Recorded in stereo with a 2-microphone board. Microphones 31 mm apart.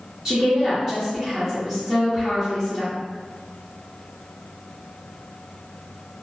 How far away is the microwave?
No microwave in this recording.